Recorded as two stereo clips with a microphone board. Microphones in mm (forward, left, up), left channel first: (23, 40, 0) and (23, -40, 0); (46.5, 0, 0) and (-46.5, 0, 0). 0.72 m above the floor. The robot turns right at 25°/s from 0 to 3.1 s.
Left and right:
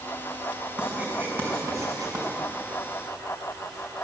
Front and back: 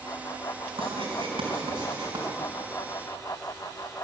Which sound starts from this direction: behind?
Writing, at 0.8 s.